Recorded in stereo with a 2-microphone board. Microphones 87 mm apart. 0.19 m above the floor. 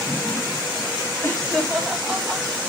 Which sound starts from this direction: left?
Laughter, at 1.2 s.